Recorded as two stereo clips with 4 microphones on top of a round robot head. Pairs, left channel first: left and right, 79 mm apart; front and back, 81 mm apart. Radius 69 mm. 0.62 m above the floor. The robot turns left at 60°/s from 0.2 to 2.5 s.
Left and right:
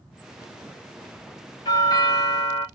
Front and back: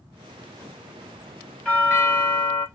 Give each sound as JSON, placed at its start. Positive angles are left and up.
{"t": 1.6, "sound": "a doorbell", "azimuth_deg": 75, "distance_m": 3.5}